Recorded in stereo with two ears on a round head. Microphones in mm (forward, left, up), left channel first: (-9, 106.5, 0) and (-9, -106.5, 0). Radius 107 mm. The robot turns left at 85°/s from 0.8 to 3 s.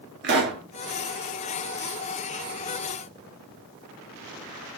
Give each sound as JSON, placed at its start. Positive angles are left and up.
{"t": 0.2, "sound": "a pop", "side_deg": -50, "distance_m": 1.8}